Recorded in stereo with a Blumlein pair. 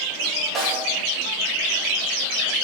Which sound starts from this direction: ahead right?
A snare drum, at 0.6 s.